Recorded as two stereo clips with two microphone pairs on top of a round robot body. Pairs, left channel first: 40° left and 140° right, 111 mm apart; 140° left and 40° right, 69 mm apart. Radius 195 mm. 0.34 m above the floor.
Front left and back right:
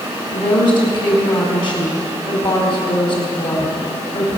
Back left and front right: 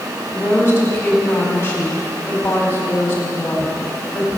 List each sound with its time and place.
0.3 s a woman speaking: 80° left, 4.5 m